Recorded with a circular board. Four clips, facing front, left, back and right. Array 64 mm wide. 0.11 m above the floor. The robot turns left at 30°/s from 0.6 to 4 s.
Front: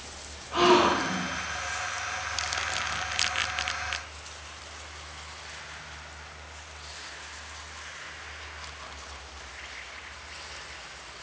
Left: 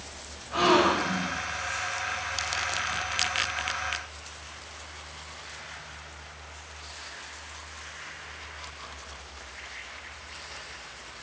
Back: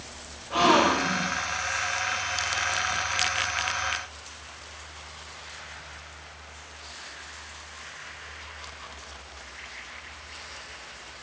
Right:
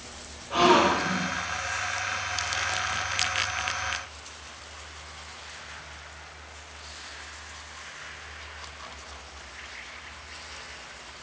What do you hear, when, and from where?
0.5 s a gasp: 130° right, 1.9 m; by 1.3 s 150° right, 1.9 m